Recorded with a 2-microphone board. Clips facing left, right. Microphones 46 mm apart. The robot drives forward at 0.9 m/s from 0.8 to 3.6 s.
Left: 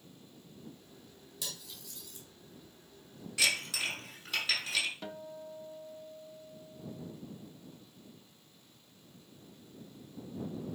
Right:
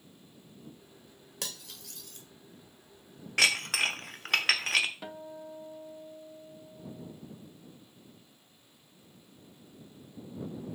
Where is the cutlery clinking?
75° right (ahead or behind), 1.4 m; by 2.3 s 65° right (ahead or behind), 1.4 m.